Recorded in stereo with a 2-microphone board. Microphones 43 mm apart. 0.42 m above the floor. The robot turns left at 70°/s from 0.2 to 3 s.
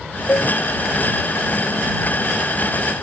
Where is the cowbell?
75° left (ahead or behind); by 0.5 s 60° left (ahead or behind).